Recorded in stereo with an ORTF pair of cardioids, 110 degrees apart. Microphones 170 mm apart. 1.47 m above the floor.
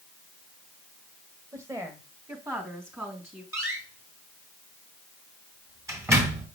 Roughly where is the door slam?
Ahead.